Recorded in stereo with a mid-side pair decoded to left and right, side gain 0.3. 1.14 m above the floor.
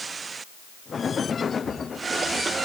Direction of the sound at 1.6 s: 35° right.